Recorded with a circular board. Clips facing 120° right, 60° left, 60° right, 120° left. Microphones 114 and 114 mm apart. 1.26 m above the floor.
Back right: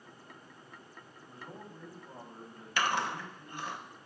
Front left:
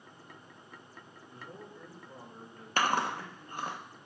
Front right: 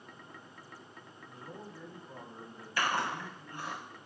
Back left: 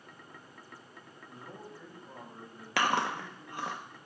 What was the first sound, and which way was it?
A man speaking, 175° right.